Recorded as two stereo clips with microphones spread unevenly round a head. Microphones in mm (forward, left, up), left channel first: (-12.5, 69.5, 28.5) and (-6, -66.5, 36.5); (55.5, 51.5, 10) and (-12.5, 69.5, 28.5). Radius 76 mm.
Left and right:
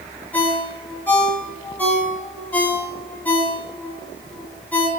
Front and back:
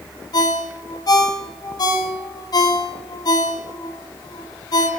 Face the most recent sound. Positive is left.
turn(degrees=15)